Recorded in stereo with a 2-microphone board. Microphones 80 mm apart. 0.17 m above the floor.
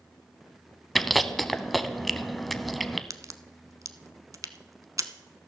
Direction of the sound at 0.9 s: Centre (ahead or behind).